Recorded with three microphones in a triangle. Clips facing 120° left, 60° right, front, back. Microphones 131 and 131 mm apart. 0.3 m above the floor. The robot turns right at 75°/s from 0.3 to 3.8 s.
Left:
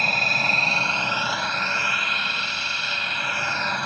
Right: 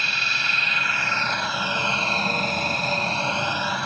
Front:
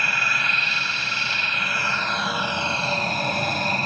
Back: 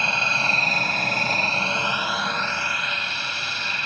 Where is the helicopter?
125° left; by 3.9 s 30° left.